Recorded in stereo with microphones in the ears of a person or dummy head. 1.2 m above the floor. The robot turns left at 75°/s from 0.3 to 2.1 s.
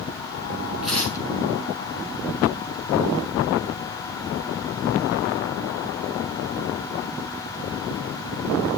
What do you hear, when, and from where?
0.8 s tearing paper: 175° right, 5 m; by 1.2 s 155° left, 5 m